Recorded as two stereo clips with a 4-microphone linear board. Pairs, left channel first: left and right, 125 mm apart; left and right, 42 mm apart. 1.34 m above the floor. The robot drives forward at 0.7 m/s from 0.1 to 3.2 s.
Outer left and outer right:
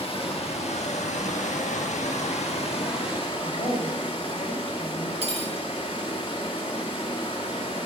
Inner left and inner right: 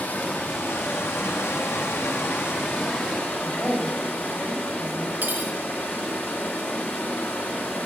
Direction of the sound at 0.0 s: 50° left (ahead or behind).